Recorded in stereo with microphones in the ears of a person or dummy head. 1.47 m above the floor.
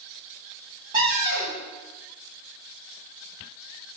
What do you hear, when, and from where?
0.9 s a cupboard door: 25° right (ahead or behind), 1.1 m